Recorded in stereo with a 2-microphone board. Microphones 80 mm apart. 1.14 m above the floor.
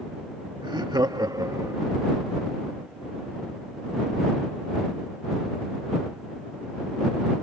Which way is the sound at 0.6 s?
65° right (ahead or behind).